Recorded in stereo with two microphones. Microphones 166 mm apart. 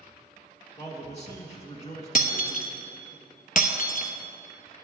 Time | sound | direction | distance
0.8 | a man speaking | 40° left (ahead or behind) | 1.6 m
2.1 | breaking glass | 55° left (ahead or behind) | 0.7 m